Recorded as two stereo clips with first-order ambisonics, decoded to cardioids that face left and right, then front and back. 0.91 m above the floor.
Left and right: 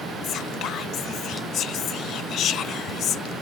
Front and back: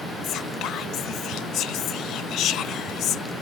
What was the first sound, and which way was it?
Whispering, 40° left.